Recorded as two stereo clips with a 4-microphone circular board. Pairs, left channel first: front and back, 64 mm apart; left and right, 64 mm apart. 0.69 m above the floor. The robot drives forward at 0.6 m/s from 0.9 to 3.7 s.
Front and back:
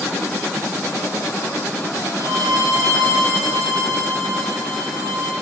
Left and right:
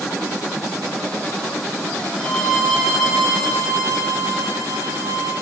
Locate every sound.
2.2 s a violin: 175° left, 4.5 m; by 5.3 s straight behind, 5.5 m